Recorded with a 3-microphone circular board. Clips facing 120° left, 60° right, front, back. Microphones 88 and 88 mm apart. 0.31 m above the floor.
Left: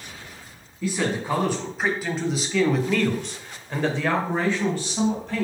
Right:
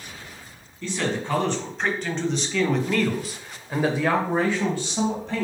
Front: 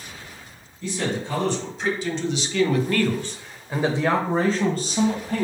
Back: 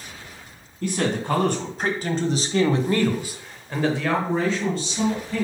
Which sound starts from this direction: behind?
A man speaking, at 0.8 s.